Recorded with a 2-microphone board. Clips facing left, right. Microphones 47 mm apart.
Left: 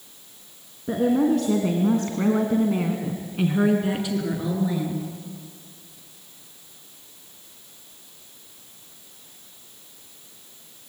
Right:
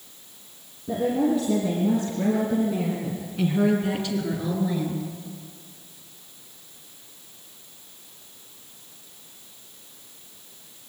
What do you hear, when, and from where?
0.9 s a woman speaking: 65° left (ahead or behind), 3.5 m; by 5.0 s 5° left (ahead or behind), 5 m